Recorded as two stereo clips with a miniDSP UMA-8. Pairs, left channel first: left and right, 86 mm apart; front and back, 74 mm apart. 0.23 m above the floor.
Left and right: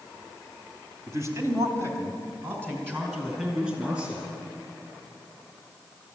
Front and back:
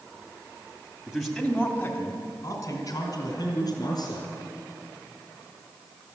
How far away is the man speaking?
About 1.9 m.